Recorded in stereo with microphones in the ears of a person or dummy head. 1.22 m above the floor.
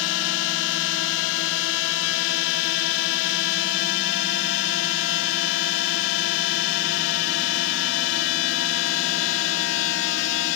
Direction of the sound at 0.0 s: 60° left (ahead or behind).